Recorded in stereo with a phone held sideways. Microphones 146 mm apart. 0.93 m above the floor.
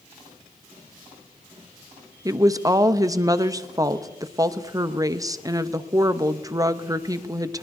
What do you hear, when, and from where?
2.2 s a woman speaking: 25° right (ahead or behind), 0.6 m